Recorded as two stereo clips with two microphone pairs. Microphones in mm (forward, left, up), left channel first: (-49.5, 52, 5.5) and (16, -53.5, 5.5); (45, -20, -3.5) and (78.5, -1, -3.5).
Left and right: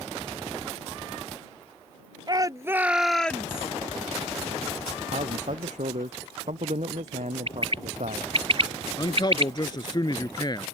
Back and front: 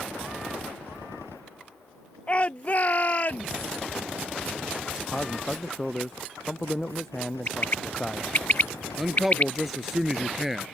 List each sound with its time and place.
2.3 s a shout: 100° right; by 3.7 s straight behind
5.1 s a man speaking: 75° right
7.5 s a bird: 100° right
9.0 s a man speaking: 110° left